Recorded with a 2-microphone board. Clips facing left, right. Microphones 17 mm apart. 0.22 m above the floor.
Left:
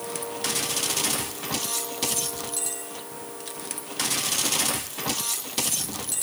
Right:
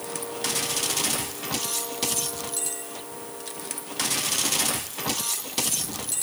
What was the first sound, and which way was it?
Only background noise.